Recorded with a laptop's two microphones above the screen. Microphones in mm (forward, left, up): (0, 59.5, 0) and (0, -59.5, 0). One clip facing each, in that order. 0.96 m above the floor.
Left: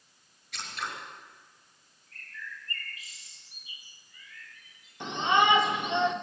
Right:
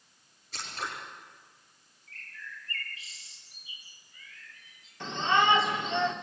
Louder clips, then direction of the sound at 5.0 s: Left 1 dB; 20° left (ahead or behind).